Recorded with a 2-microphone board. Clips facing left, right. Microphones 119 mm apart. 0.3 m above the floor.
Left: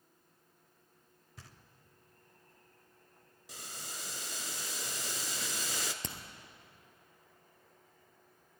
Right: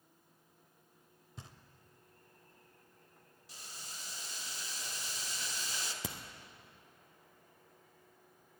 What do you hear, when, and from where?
1.4 s knocking: 20° right (ahead or behind), 0.7 m
3.5 s boiling: 85° left, 0.6 m
6.0 s a crack: 5° right (ahead or behind), 1.1 m